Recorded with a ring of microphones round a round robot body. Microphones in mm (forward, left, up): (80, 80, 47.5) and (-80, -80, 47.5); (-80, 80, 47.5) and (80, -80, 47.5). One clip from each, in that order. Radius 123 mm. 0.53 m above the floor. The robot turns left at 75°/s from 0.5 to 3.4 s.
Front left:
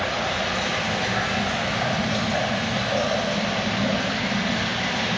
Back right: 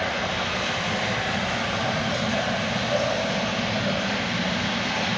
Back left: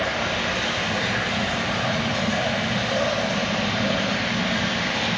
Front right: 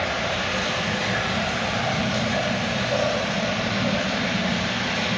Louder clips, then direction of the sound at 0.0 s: Front left 1 dB, back left 1 dB; 35° left.